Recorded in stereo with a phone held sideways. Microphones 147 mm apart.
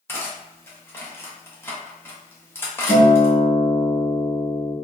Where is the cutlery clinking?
15° left (ahead or behind), 0.7 m.